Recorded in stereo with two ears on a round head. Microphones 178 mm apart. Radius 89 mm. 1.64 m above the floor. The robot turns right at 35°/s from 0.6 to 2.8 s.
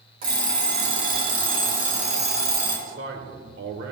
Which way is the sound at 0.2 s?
105° right.